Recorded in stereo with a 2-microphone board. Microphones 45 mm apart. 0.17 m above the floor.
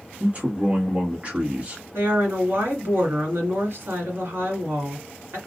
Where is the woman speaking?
55° right (ahead or behind), 2.0 m.